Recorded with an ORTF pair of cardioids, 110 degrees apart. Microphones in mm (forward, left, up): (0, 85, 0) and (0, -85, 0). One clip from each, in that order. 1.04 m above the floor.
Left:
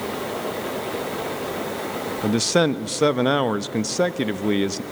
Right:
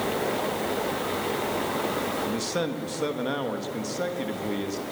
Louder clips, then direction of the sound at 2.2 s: Left 8 dB; 50° left.